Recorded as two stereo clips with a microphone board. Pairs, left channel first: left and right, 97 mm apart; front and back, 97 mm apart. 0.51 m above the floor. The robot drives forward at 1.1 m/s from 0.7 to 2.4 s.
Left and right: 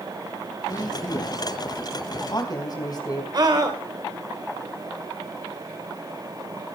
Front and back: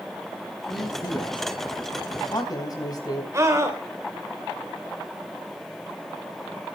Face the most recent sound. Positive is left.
turn(degrees=-130)